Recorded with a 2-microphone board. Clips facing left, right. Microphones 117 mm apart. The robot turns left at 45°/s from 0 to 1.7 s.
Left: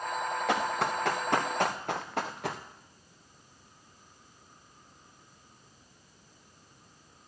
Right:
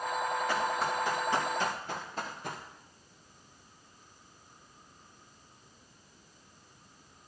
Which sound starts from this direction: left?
Running footsteps, at 0.5 s.